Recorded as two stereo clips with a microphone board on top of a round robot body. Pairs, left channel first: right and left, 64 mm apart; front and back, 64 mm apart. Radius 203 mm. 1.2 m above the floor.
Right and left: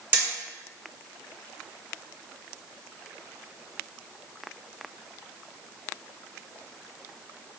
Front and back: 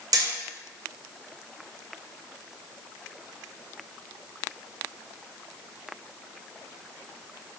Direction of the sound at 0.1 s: 150° left.